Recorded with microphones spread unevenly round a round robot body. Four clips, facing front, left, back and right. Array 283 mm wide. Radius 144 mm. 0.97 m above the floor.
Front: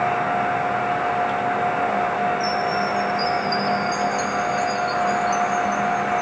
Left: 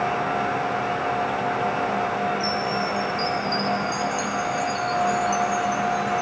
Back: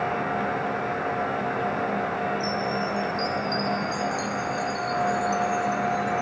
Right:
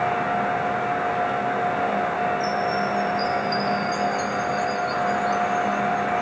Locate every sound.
2.4 s a chime: 120° left, 1.1 m